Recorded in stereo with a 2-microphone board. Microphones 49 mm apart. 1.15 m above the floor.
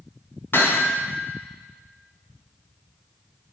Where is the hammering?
50° left (ahead or behind), 2.5 m.